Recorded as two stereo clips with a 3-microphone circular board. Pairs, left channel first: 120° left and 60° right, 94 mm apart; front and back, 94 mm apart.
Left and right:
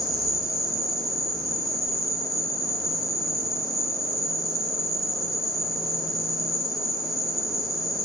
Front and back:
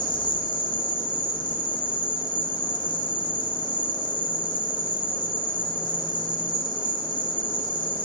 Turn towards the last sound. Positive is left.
turn(degrees=30)